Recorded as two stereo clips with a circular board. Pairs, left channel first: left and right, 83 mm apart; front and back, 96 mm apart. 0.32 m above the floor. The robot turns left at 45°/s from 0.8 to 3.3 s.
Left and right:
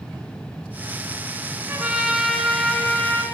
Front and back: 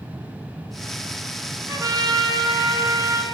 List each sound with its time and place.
1.7 s a trumpet: 145° right, 1.1 m; by 3.2 s 145° left, 1.1 m